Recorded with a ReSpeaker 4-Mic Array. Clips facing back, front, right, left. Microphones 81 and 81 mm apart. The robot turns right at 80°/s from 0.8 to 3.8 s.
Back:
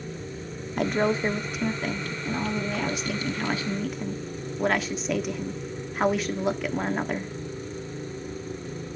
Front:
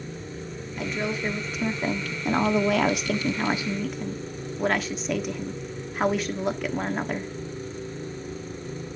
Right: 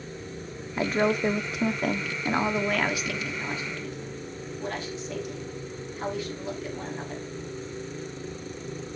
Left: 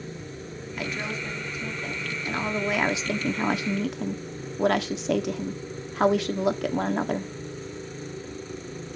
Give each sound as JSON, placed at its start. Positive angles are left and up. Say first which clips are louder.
{"t": 0.8, "sound": "a woman speaking", "louder": "back 5 dB, right 9 dB", "azimuth_deg": -150, "distance_m": 1.4}